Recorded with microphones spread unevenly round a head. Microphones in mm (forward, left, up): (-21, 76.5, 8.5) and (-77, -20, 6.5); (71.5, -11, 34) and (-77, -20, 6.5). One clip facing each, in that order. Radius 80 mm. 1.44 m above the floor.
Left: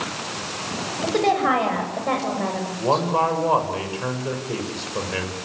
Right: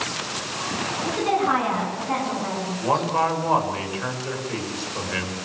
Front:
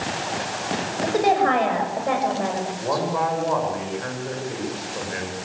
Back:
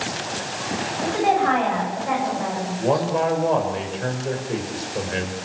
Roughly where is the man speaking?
Behind left.